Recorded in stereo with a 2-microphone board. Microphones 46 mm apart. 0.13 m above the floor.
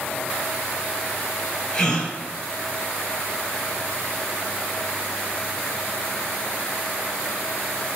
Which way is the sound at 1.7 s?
20° left (ahead or behind).